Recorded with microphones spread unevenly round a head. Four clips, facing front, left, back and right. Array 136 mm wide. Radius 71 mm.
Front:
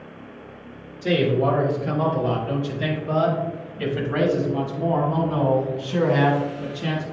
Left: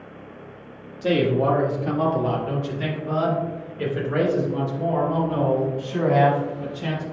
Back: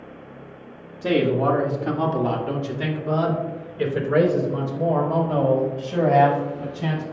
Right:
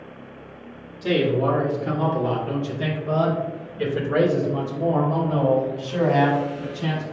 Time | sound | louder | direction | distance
1.0 | a man speaking | left 1 dB, back 1 dB | 150° left | 1.6 m